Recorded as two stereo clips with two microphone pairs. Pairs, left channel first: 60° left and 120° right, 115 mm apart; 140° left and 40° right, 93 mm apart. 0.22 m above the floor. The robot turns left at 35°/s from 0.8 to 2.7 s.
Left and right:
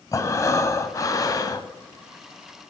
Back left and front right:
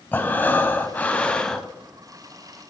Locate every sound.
0.1 s breathing: 90° left, 0.6 m; by 1.7 s 60° left, 0.6 m